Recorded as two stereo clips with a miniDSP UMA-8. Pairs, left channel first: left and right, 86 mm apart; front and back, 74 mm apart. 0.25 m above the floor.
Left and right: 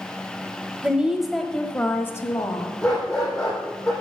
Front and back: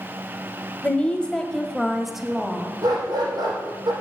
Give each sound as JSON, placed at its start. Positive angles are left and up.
{"t": 0.8, "sound": "a woman speaking", "azimuth_deg": -40, "distance_m": 1.1}
{"t": 2.8, "sound": "a dog barking", "azimuth_deg": 170, "distance_m": 4.0}